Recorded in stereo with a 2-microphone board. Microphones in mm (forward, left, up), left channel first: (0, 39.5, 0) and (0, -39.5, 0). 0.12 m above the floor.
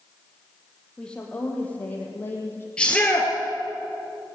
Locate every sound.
1.0 s a woman speaking: 10° left (ahead or behind), 4 m; by 2.7 s 25° left (ahead or behind), 5 m
2.8 s a shout: 10° left (ahead or behind), 2 m